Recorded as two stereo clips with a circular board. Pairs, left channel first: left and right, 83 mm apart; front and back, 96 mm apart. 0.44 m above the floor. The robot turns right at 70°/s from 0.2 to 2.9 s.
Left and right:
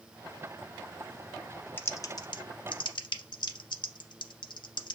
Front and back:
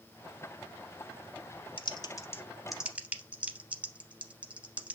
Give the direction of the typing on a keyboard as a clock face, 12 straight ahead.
11 o'clock.